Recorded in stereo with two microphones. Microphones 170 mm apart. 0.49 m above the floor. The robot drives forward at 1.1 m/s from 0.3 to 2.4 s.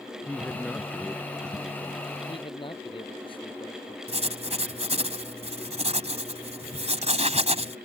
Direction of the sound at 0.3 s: 5° left (ahead or behind).